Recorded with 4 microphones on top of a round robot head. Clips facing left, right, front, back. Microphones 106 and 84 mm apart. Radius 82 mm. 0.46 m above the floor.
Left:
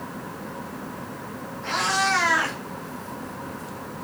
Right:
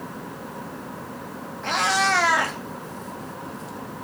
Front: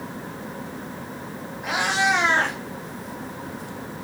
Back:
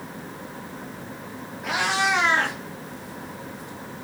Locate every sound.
1.6 s a cat meowing: 75° right, 1.9 m; by 4.0 s 20° right, 1.6 m